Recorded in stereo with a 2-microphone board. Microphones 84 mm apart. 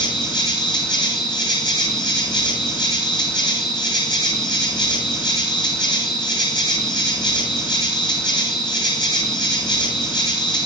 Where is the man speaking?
No man speaking in this recording.